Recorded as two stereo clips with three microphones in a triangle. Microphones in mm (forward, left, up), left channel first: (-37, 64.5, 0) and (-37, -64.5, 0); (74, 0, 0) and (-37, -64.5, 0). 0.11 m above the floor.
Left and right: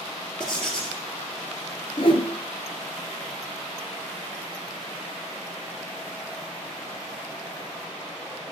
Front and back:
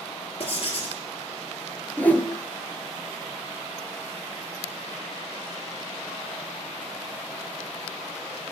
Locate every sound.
0.4 s writing: 10° left, 1.4 m
2.0 s a whoosh: 100° left, 0.6 m